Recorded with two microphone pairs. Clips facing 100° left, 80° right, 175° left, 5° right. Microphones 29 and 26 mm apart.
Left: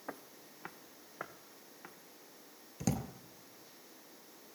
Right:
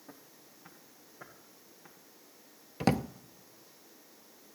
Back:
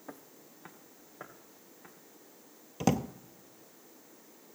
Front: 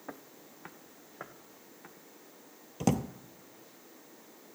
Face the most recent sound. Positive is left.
turn(degrees=-110)